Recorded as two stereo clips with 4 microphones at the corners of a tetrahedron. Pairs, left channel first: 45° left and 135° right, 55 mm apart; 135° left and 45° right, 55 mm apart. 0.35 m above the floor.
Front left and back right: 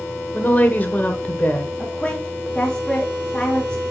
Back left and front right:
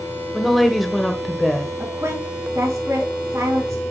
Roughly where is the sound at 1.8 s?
Ahead right.